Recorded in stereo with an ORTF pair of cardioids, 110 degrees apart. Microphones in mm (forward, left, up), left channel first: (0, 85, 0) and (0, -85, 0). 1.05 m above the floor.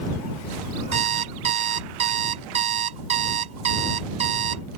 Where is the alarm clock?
45° right.